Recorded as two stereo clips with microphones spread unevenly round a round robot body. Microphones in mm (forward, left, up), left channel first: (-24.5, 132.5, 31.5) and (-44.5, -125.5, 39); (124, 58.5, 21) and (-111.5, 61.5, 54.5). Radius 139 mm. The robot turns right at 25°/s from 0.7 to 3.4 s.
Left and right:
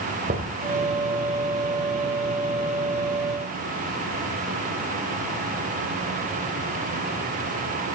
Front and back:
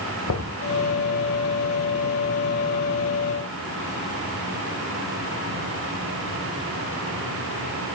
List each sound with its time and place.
0.3 s knocking: 35° right, 2.5 m